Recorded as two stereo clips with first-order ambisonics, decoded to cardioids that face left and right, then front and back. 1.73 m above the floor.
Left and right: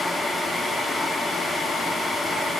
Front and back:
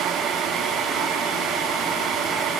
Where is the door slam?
I don't hear a door slam.